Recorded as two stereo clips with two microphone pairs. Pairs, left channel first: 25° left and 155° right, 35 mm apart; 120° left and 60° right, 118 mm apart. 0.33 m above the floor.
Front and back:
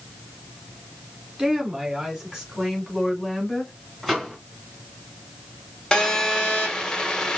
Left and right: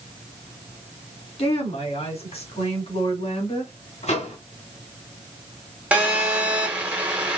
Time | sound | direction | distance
1.4 | a woman speaking | 140° left | 2.5 m
4.0 | a microwave | 120° left | 1.9 m
5.9 | a phone buzzing | straight ahead | 1.3 m